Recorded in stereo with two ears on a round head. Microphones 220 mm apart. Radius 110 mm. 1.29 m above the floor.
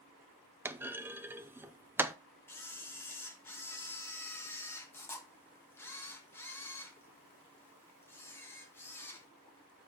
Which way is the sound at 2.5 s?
10° left (ahead or behind).